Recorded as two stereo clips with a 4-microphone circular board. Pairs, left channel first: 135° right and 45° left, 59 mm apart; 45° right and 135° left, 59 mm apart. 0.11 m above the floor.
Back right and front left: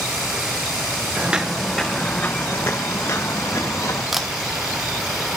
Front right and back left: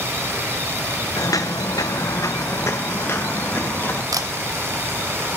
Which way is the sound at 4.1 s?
135° left.